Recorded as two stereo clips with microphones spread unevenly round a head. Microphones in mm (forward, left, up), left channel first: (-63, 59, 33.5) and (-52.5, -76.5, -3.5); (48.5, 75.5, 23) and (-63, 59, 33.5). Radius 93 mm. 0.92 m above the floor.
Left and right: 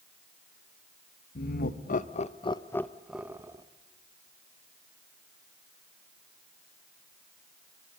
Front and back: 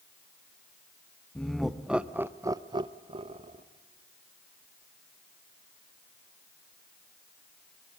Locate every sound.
1.4 s laughter: 90° left, 1.5 m; by 3.6 s 135° right, 1.4 m